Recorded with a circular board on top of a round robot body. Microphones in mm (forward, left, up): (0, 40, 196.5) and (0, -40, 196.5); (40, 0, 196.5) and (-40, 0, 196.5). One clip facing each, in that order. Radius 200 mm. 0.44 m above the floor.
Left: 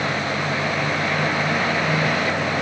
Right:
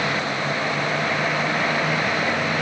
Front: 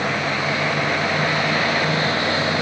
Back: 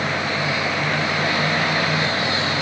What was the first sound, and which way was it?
Only background noise.